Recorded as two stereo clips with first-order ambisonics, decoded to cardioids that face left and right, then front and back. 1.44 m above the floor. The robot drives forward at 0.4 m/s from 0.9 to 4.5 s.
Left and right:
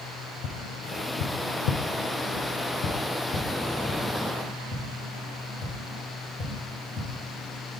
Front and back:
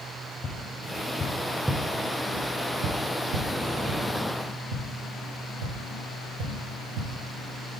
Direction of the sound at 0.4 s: 60° left.